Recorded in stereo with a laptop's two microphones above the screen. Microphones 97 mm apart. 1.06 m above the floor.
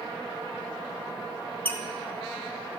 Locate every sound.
1.6 s a squeak: 20° left (ahead or behind), 0.7 m